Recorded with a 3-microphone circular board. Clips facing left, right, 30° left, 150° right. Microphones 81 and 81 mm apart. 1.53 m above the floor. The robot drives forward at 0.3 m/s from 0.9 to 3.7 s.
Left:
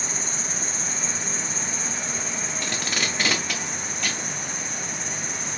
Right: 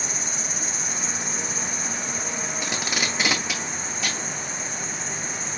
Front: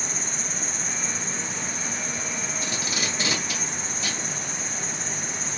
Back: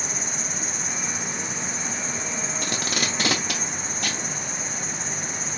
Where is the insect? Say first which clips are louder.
Even, back 1 dB; 130° left, 0.8 m; by 5.6 s 160° left, 1.4 m.